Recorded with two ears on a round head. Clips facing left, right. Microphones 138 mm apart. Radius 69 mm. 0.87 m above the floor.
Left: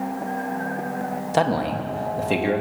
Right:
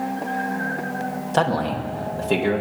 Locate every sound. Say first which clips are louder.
1.3 s a man speaking: even; 10° left (ahead or behind), 1.1 m; by 2.6 s 5° left (ahead or behind), 1.6 m